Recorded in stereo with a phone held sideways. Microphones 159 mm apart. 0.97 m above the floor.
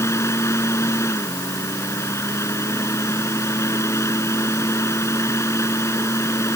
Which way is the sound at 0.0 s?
15° left (ahead or behind).